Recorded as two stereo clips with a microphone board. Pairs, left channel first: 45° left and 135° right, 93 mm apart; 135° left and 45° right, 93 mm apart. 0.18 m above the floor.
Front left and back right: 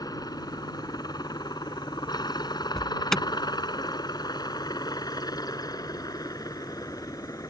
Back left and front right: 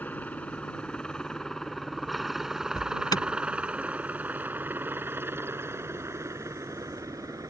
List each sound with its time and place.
0.0 s a helicopter: 70° left; by 7.5 s straight ahead
2.8 s an alarm: 125° left